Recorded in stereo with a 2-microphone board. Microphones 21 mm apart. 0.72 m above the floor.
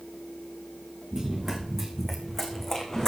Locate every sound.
1.1 s running footsteps: 25° right (ahead or behind), 3.5 m; by 3.1 s 25° left (ahead or behind), 2.5 m